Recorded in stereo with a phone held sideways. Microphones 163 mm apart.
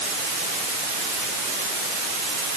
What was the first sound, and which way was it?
Only background noise.